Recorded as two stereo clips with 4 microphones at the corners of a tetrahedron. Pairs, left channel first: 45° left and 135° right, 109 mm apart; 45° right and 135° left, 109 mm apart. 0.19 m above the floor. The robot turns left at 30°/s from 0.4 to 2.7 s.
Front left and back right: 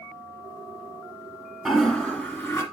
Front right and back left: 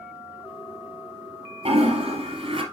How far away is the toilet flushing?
About 2 m.